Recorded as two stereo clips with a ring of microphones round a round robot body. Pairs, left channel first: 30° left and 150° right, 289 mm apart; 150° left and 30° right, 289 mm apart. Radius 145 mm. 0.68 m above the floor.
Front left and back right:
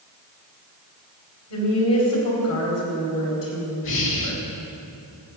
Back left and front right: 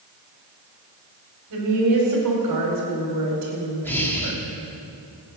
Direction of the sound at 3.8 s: 70° left.